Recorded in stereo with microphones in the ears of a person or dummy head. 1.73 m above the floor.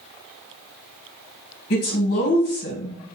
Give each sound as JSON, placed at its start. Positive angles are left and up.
{"t": 1.7, "sound": "a woman speaking", "side_deg": 55, "distance_m": 1.1}